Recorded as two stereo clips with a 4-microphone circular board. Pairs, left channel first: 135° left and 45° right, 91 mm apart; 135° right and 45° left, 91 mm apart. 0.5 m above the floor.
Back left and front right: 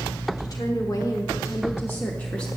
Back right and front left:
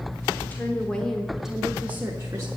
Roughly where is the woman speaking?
Behind.